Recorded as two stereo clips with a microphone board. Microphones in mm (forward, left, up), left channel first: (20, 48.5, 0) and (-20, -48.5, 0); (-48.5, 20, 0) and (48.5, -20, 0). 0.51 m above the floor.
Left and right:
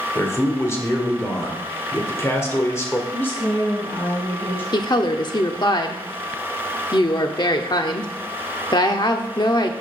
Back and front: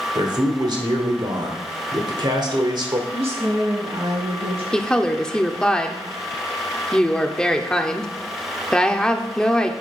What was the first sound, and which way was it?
A man speaking, 10° left.